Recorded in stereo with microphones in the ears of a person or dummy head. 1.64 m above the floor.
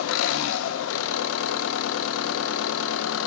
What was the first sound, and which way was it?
An engine running, 80° left.